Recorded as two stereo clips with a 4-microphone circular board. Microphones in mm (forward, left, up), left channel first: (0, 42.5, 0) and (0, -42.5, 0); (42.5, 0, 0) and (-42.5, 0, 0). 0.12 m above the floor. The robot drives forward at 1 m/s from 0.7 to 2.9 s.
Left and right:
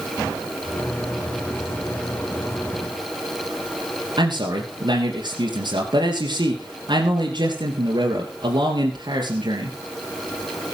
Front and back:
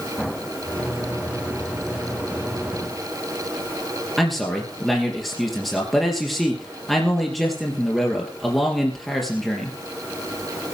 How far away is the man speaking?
About 3 m.